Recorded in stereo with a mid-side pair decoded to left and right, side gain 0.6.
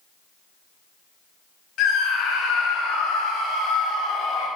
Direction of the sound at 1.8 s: 60° left.